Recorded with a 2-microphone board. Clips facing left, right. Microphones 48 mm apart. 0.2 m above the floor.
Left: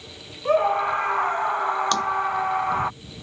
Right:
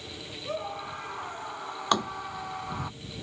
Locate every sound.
0.5 s a scream: 50° left (ahead or behind); by 2.9 s 45° left (ahead or behind)
1.9 s tapping: 15° right (ahead or behind)